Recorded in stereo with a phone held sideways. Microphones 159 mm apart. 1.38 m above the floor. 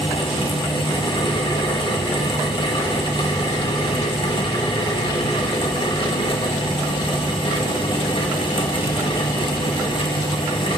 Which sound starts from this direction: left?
A fan, at 0.0 s.